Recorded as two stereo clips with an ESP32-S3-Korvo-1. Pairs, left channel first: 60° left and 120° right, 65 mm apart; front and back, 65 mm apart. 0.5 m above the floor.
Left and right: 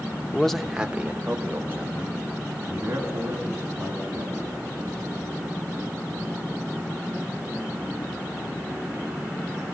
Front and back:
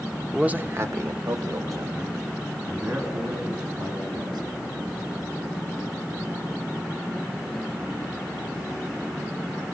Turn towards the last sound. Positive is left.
turn(degrees=-175)